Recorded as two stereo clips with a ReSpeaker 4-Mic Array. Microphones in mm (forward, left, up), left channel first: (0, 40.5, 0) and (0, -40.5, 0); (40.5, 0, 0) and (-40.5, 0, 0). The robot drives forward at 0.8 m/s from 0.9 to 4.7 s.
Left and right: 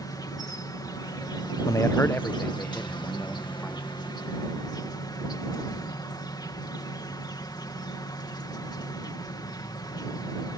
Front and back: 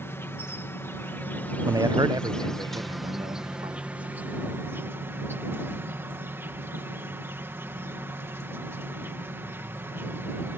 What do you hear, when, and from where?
0.0 s an insect: 55° left; by 10.6 s 120° left
1.6 s a man speaking: 135° left; by 4.0 s 170° left